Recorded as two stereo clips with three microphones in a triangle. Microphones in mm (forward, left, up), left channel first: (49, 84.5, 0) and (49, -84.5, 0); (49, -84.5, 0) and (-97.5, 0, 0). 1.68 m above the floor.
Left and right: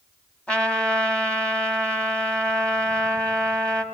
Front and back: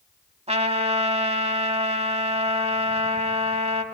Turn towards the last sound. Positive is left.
turn(degrees=170)